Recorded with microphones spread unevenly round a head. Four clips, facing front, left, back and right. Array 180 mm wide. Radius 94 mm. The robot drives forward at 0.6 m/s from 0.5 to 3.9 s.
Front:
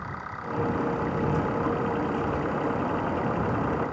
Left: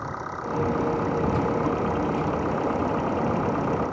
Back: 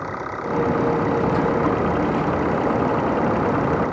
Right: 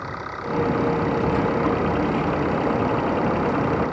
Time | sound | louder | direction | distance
0.0 | an engine running | right 1 dB, back 8 dB | straight behind | ?